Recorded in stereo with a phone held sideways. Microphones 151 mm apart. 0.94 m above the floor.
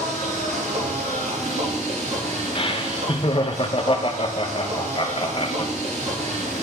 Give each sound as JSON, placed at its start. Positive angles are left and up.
{"t": 0.0, "sound": "a machine running", "side_deg": -50, "distance_m": 2.5}
{"t": 2.5, "sound": "laughter", "side_deg": 35, "distance_m": 0.7}